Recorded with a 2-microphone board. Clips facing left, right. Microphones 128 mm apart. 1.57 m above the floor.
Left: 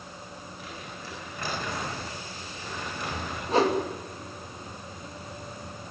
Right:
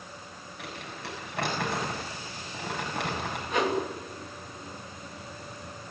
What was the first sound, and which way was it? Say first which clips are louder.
Crumpling: right 4 dB; 70° right (ahead or behind).